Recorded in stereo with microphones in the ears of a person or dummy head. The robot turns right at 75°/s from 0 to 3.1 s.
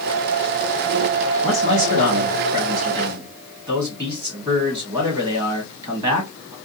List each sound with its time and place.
1.4 s a man speaking: 155° right, 1.4 m; by 6.5 s 30° right, 1.4 m